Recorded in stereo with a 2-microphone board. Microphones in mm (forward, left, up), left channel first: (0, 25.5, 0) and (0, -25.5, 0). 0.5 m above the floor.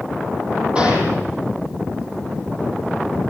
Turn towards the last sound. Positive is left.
turn(degrees=-25)  # may be behind; listen again after turning